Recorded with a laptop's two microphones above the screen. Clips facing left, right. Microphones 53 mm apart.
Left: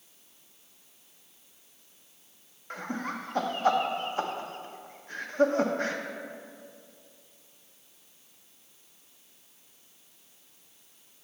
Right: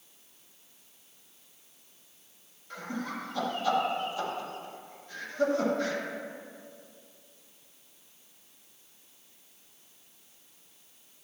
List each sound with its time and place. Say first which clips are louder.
2.7 s laughter: left 2 dB; 45° left (ahead or behind), 1.0 m